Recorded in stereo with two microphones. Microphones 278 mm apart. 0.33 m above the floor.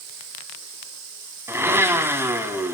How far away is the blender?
About 1.8 m.